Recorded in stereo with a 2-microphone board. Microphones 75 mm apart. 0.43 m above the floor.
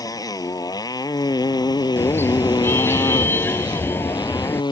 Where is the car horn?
30° left (ahead or behind).